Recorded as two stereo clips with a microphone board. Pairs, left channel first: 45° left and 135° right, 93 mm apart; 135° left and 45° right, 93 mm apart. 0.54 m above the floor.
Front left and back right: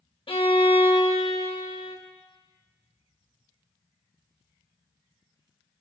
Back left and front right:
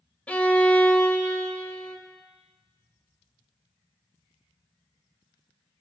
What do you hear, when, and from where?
0.3 s a violin: 60° left, 0.7 m